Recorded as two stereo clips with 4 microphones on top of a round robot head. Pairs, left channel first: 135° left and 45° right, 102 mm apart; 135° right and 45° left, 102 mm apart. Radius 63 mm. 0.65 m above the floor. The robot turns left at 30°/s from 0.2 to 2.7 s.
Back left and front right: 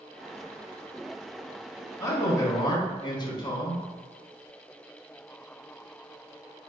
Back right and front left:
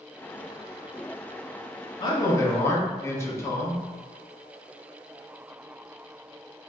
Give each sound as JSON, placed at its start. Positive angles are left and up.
{"t": 2.0, "sound": "a man speaking", "azimuth_deg": -170, "distance_m": 1.1}